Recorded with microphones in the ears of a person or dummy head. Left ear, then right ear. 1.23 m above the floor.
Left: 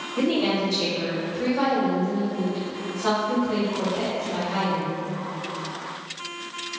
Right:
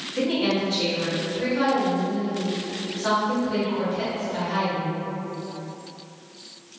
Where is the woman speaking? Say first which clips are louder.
Left 1 dB; 10° right (ahead or behind), 1.7 m.